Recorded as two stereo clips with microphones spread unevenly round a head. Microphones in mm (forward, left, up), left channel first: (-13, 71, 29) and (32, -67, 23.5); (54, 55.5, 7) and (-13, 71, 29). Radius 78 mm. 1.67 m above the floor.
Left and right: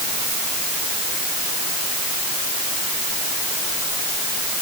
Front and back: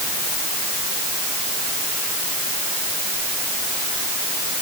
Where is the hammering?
No hammering in this recording.